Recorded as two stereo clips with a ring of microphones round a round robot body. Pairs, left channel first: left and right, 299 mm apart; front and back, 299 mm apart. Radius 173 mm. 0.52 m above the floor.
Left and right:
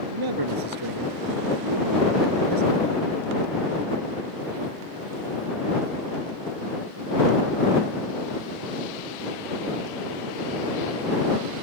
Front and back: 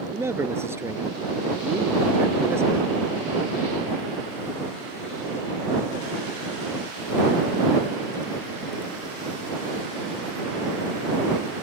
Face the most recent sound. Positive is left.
turn(degrees=-100)